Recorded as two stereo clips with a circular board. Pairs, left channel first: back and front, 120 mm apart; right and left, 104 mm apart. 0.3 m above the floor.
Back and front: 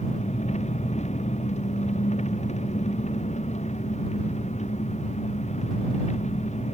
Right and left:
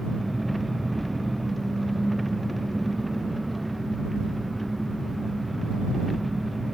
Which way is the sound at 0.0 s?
Straight behind.